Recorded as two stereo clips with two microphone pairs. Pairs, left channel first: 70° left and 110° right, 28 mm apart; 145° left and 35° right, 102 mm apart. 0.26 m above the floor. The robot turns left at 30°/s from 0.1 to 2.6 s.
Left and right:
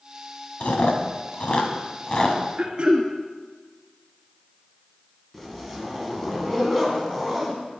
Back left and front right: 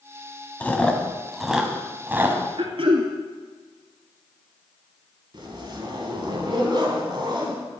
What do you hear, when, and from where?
0.6 s chewing: 75° left, 1.2 m; by 2.4 s 20° left, 1.2 m
2.6 s throat clearing: 55° right, 1.5 m
5.3 s a zipper: 5° right, 2 m